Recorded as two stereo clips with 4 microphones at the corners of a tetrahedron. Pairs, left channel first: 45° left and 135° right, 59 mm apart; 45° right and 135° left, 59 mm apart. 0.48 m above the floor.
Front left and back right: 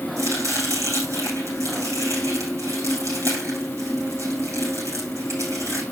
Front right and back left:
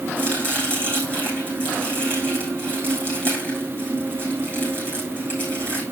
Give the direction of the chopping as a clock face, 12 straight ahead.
3 o'clock.